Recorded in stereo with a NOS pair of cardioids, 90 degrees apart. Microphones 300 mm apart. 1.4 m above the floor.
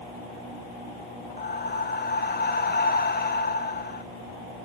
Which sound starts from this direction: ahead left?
Breathing, at 1.4 s.